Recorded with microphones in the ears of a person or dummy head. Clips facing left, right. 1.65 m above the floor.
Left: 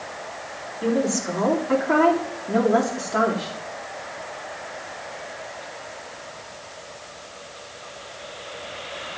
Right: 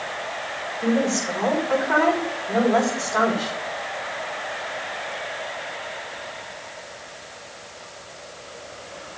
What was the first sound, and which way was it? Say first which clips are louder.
A woman speaking: right 1 dB; 55° left (ahead or behind).